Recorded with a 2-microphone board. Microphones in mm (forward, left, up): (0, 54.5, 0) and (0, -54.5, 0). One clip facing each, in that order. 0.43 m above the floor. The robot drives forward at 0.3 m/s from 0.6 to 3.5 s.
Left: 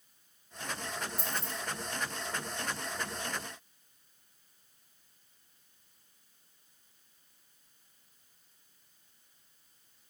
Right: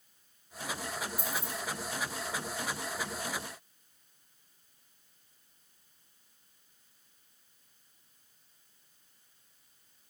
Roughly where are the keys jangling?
Right.